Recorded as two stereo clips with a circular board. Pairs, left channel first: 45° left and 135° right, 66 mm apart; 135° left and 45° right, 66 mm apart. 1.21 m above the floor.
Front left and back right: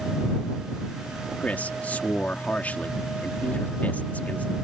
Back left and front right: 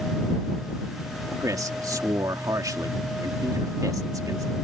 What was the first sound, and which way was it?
A man speaking, 20° right.